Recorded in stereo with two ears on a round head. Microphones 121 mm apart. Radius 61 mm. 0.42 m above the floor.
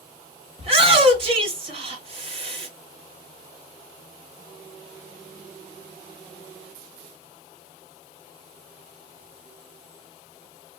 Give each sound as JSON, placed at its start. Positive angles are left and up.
{"t": 0.6, "sound": "a shout", "side_deg": -45, "distance_m": 2.0}